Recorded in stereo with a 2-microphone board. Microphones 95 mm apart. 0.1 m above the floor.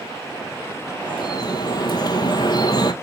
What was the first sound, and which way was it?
Dripping, 45° left (ahead or behind).